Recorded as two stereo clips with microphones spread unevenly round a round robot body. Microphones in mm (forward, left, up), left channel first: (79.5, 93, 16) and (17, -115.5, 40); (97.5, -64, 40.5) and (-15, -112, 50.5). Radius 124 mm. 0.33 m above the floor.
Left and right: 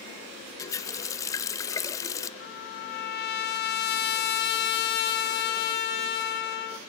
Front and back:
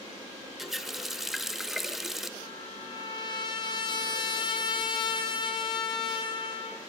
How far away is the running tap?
About 0.6 m.